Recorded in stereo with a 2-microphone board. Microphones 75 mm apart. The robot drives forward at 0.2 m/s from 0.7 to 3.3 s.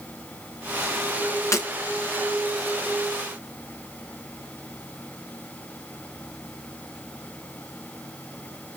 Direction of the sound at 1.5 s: 40° left (ahead or behind).